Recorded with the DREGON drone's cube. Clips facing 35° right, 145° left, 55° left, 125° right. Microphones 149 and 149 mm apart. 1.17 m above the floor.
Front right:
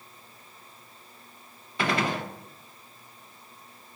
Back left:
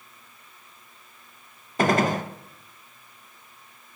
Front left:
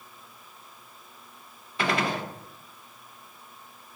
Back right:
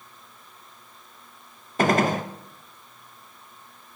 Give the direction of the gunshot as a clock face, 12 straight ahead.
6 o'clock.